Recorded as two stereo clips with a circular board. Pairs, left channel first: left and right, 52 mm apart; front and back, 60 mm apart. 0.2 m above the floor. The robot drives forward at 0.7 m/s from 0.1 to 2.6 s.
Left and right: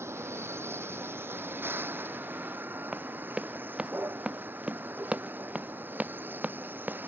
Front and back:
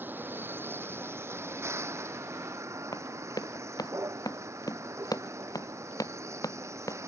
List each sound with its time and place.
0.0 s a vehicle: 125° right; by 7.1 s 140° right
2.9 s running footsteps: 15° right; by 7.1 s 30° right